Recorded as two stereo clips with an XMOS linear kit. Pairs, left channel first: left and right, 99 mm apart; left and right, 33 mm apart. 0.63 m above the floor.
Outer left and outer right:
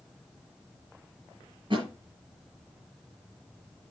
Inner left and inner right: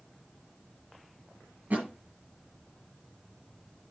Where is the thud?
50° right (ahead or behind), 5.5 m.